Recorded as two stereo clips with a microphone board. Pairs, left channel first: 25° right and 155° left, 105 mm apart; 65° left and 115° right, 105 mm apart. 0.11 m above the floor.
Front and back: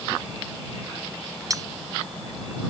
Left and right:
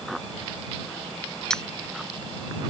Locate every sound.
1.5 s cutlery clinking: 145° left